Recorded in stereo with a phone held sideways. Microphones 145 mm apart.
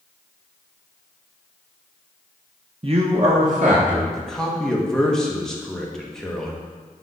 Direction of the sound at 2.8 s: 40° right (ahead or behind).